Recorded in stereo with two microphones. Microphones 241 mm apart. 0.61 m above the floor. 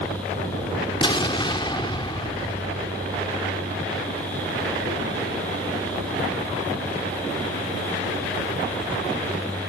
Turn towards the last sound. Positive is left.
turn(degrees=20)  # may be behind; listen again after turning